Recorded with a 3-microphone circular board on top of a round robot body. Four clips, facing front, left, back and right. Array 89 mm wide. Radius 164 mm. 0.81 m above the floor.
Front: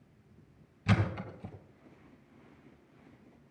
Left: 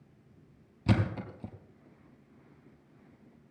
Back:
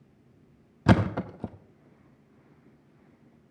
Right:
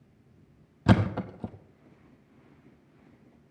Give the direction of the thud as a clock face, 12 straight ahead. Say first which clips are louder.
Right 6 dB, back 9 dB; 5 o'clock.